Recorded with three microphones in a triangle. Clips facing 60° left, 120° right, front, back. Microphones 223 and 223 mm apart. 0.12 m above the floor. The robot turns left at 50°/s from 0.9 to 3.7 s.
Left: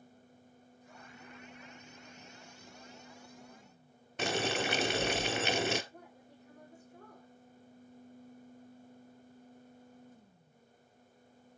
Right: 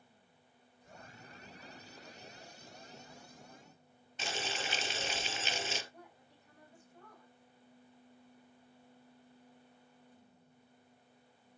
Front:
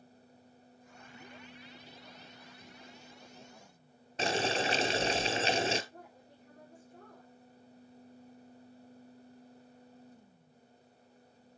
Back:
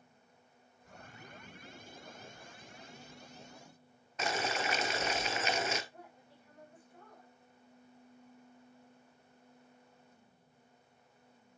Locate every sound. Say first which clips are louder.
4.2 s boiling: left 9 dB, front 4 dB; 55° left, 0.8 m
5.9 s a woman speaking: left 3 dB, front 2 dB; 40° left, 5.5 m